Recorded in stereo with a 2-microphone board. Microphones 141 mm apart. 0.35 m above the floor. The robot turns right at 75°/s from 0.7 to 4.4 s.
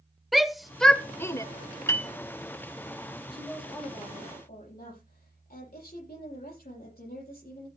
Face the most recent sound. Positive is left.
turn(degrees=80)